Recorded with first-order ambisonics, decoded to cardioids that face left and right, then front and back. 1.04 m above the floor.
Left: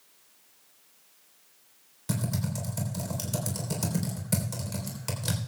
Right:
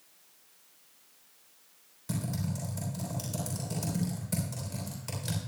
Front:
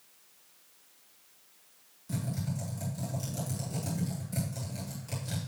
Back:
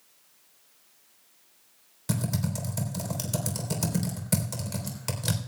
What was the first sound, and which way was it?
Typing on a keyboard, 160° left.